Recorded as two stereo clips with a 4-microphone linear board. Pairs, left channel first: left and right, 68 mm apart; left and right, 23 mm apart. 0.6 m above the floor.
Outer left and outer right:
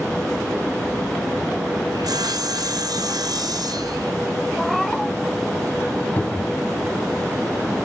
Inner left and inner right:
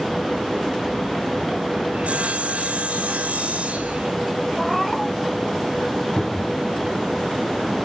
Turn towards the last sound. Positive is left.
turn(degrees=30)  # may be behind; listen again after turning